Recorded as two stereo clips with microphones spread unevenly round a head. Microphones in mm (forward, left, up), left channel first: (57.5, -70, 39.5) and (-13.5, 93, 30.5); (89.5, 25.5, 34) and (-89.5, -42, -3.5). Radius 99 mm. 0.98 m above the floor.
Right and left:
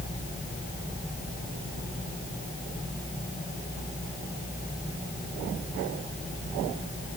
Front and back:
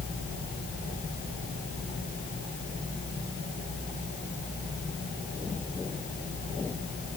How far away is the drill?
No drill in this recording.